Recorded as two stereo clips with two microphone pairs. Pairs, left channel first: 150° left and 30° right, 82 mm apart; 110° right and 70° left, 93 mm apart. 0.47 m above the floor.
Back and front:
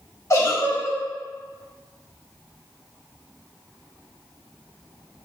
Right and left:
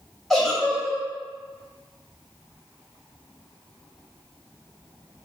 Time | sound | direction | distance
0.3 | a giggle | 160° left | 1.3 m